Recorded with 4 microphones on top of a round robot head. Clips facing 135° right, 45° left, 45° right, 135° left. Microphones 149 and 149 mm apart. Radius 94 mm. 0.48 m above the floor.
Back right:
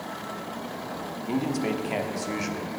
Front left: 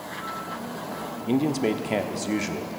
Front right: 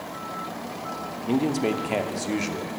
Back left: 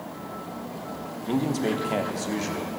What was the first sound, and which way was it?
A man speaking, 20° left.